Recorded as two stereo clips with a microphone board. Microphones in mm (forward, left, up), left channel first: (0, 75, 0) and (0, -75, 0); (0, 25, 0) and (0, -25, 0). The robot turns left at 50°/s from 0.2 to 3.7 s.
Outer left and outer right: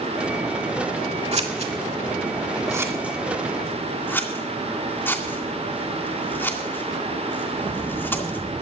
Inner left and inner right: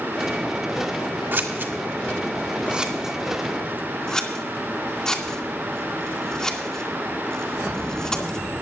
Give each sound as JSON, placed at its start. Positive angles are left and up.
{"t": 1.3, "sound": "scissors", "side_deg": -45, "distance_m": 2.0}